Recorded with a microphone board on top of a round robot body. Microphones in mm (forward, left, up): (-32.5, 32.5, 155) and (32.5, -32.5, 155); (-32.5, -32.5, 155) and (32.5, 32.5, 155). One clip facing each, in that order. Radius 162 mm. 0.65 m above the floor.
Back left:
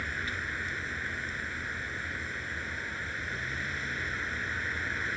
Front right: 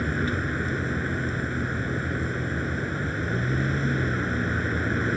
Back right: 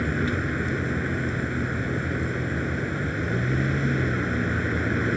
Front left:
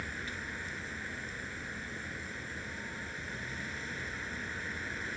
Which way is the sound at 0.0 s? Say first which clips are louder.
Front right 9 dB, back right 15 dB; 100° right.